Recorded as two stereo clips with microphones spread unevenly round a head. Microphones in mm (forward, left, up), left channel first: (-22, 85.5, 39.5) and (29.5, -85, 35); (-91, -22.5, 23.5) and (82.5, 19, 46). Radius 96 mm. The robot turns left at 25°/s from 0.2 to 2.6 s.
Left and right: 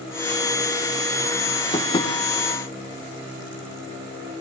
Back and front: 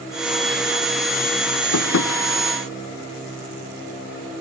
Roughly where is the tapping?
Behind.